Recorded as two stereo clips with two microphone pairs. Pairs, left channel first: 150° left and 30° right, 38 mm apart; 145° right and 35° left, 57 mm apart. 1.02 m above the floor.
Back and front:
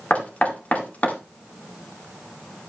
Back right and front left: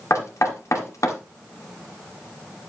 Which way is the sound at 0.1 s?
165° right.